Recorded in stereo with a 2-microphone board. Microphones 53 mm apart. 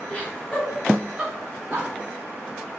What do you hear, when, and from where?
0.1 s laughter: 30° left (ahead or behind), 1.3 m; by 1.9 s 20° right (ahead or behind), 1.8 m